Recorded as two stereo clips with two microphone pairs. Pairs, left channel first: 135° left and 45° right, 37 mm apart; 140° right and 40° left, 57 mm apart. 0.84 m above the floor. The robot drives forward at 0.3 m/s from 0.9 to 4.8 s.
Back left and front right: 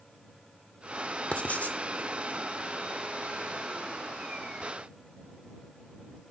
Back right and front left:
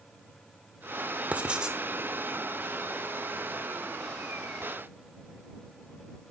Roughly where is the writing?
Left.